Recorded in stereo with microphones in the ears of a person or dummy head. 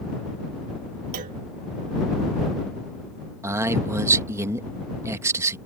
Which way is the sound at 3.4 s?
15° right (ahead or behind).